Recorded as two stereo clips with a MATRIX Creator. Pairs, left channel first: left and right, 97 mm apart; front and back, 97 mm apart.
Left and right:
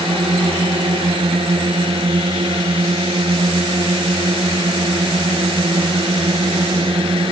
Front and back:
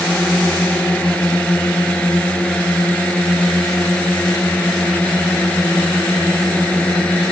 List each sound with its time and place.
0.0 s a drone: 80° right